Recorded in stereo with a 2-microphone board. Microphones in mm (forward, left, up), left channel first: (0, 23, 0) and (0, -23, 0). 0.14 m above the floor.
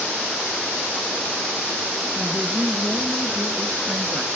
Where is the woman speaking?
25° right (ahead or behind), 2 m.